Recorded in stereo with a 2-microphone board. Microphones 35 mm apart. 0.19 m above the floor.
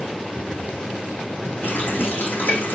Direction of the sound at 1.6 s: 80° left.